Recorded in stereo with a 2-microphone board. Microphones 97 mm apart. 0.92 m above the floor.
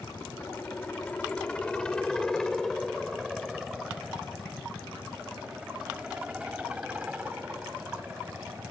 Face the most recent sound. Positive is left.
turn(degrees=-15)  # may be behind; listen again after turning